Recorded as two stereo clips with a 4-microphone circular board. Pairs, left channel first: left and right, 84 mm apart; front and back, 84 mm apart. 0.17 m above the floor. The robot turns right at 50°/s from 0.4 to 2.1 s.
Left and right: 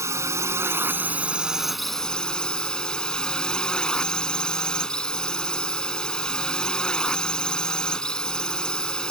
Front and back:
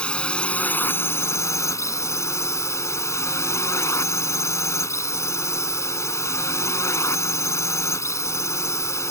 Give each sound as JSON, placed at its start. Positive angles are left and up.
{"t": 0.0, "sound": "a drone", "azimuth_deg": -70}